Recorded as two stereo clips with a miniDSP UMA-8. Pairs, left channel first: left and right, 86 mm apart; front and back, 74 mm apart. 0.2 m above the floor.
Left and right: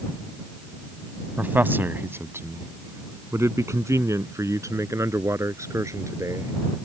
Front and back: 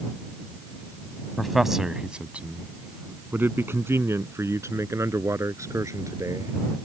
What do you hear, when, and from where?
1.4 s a man speaking: 85° right; by 6.5 s 140° right